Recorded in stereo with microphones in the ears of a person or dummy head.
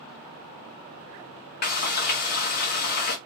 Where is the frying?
40° left (ahead or behind), 1.2 m.